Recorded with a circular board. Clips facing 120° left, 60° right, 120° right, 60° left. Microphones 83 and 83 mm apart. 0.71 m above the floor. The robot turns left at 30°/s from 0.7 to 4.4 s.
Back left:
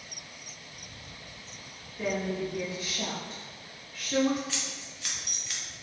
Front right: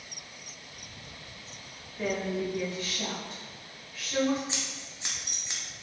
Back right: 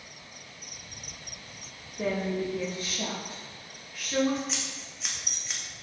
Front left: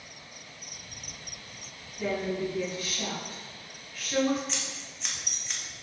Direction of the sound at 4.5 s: 35° right.